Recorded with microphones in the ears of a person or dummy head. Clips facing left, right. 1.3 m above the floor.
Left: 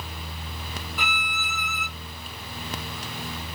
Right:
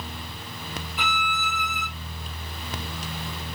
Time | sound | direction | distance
1.0 | a violin | 20° right (ahead or behind) | 1.3 m